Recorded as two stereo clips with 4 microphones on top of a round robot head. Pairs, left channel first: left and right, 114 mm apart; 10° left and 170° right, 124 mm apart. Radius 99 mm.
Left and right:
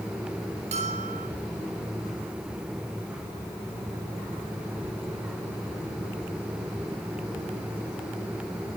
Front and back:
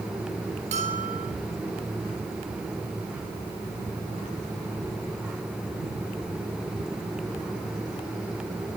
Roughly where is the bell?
Behind right.